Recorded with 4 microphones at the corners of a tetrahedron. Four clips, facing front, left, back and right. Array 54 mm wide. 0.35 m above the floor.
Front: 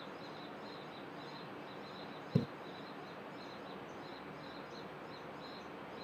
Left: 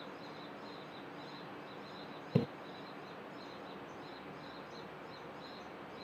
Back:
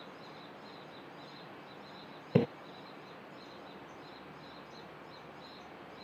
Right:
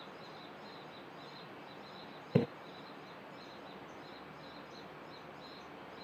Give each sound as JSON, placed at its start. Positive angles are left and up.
{"t": 2.4, "sound": "a splash", "azimuth_deg": -160}